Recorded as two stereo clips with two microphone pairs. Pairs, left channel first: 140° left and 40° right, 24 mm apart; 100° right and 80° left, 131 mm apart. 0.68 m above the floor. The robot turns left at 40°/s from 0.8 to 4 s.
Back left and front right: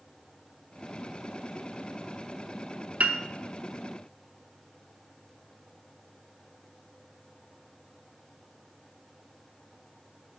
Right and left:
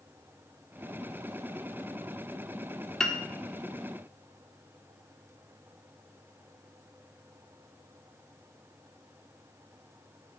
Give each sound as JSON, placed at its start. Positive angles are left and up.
{"t": 3.0, "sound": "a piano", "azimuth_deg": -15, "distance_m": 0.6}